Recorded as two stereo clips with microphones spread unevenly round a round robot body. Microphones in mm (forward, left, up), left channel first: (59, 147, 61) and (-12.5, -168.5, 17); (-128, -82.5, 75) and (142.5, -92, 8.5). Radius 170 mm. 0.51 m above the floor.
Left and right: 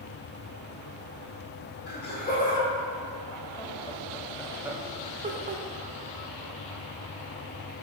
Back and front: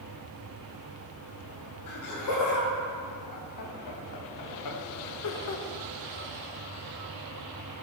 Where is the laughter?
140° left, 2.5 m; by 5.6 s 150° right, 1.2 m.